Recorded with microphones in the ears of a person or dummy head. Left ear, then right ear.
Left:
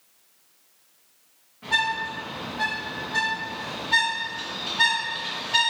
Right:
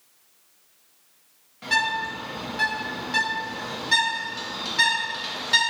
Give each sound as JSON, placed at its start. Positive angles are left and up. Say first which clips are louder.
{"t": 1.6, "sound": "a bird", "louder": "right 1 dB", "side_deg": -75, "distance_m": 1.2}